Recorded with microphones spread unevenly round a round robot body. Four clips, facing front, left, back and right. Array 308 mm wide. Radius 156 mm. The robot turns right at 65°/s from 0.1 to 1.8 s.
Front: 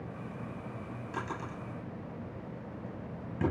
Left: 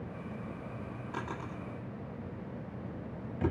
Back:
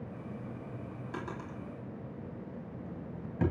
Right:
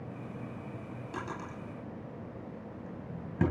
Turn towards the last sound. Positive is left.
turn(degrees=-100)